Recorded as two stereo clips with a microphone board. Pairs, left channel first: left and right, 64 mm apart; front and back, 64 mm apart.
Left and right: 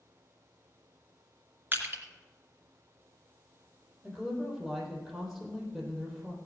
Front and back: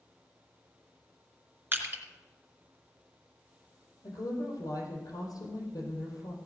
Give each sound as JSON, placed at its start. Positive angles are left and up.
{"t": 1.7, "sound": "crushing", "azimuth_deg": -135, "distance_m": 2.5}
{"t": 4.0, "sound": "a woman speaking", "azimuth_deg": 0, "distance_m": 4.0}